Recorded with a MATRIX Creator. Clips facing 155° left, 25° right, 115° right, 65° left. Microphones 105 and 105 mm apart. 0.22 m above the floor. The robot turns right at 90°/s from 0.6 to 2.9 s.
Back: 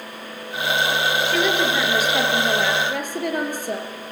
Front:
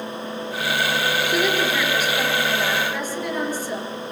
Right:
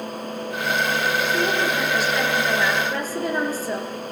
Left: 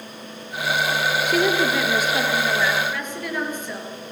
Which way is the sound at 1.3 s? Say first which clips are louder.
Even, left 2 dB; 45° left.